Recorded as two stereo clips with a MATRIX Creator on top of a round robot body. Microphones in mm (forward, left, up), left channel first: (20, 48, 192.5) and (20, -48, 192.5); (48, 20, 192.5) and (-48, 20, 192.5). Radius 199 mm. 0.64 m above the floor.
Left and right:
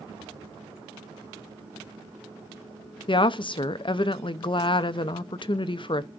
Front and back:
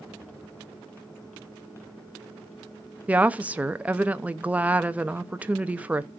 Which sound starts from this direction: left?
A woman speaking, at 3.1 s.